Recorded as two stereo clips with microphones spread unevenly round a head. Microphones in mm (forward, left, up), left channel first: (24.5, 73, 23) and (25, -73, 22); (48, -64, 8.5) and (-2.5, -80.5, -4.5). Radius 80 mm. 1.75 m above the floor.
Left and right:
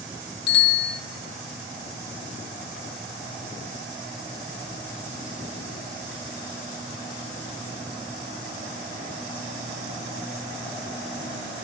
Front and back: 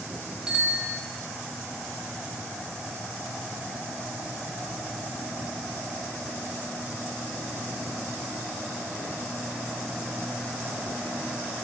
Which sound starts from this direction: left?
A bicycle bell, at 0.5 s.